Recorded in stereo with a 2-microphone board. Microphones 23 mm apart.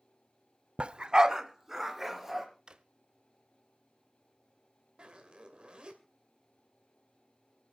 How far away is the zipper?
About 2 m.